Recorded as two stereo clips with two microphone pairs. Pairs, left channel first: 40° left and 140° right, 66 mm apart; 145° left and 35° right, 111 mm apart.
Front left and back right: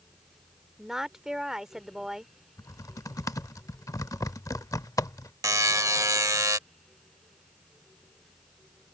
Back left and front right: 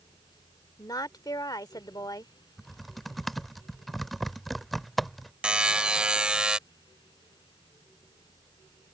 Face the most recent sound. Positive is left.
turn(degrees=-110)